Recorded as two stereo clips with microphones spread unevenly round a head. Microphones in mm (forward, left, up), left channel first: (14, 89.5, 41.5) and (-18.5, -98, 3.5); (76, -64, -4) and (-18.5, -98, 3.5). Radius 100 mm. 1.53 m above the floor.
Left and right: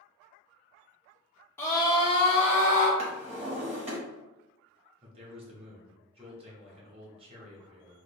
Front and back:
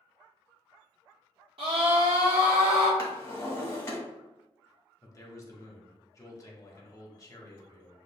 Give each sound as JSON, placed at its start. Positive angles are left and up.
{"t": 1.6, "sound": "a scream", "azimuth_deg": 155, "distance_m": 1.1}
{"t": 3.0, "sound": "a drawer", "azimuth_deg": -40, "distance_m": 1.3}
{"t": 5.0, "sound": "a man speaking", "azimuth_deg": -35, "distance_m": 1.2}